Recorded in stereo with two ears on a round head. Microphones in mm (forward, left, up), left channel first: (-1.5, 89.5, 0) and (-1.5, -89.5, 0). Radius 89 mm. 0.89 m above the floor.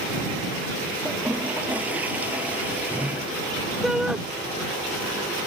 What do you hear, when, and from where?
1.1 s a toilet flushing: 10° right (ahead or behind)
3.8 s a shout: 5° right (ahead or behind)